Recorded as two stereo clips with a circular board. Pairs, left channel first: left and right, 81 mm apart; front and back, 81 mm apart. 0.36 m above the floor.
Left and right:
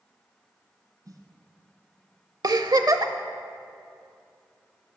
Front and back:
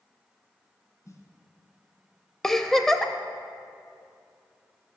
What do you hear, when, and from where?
1.1 s a snare drum: 50° right, 1.2 m
2.4 s a giggle: 85° right, 0.6 m